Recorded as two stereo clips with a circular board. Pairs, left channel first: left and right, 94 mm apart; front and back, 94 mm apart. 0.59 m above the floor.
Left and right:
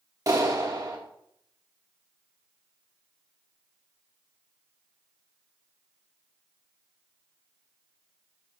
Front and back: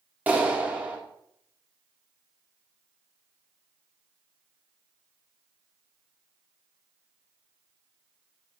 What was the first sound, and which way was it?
A clap, 115° right.